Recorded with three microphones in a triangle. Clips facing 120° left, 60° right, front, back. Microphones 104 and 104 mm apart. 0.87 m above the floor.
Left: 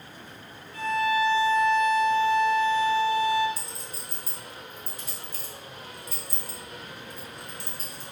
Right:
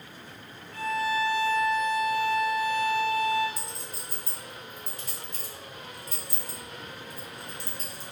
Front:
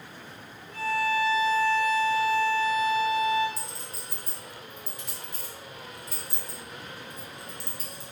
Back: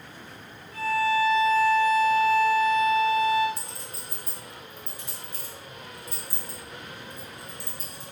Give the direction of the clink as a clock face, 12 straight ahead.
1 o'clock.